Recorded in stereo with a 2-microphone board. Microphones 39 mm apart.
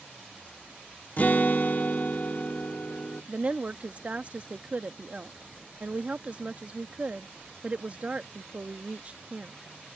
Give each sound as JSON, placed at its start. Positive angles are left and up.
{"t": 1.2, "sound": "a guitar", "side_deg": 45}
{"t": 3.3, "sound": "a woman speaking", "side_deg": -35}